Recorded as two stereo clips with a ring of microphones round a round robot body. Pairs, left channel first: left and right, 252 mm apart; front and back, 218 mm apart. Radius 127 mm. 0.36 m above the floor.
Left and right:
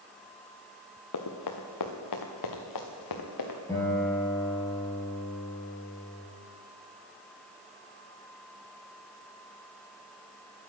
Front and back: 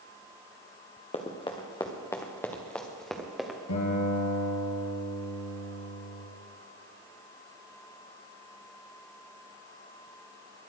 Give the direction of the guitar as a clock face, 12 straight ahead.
12 o'clock.